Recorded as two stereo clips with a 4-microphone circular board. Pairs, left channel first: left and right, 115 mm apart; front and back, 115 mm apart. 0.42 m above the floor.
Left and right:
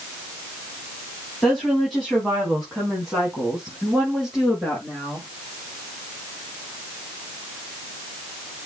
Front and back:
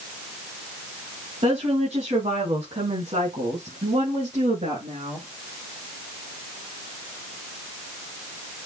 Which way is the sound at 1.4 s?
175° left.